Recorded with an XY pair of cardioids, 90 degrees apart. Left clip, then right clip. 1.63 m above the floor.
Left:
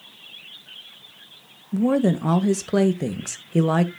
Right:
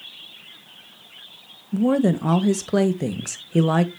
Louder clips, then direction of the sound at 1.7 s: Right 1 dB; straight ahead.